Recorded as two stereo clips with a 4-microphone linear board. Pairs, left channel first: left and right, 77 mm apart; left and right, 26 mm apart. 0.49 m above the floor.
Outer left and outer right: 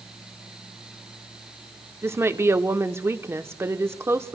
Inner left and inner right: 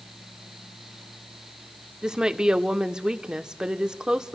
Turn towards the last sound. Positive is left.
turn(degrees=-35)  # may be behind; listen again after turning